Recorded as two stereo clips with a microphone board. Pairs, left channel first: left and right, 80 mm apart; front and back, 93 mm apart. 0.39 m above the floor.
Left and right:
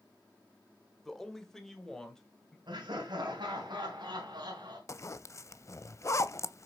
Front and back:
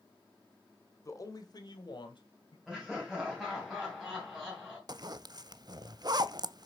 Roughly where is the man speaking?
Ahead.